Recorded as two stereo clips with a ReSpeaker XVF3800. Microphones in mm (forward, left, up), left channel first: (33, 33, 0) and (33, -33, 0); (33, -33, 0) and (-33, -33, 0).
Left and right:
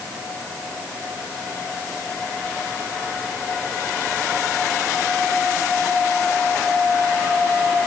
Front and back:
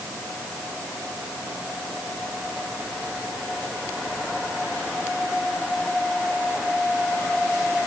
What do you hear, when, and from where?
Only background noise.